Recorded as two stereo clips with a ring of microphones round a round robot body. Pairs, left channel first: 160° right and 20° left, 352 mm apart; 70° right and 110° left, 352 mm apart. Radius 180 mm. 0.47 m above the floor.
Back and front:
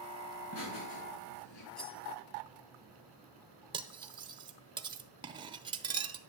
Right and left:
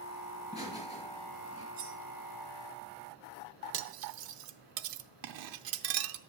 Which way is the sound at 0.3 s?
140° right.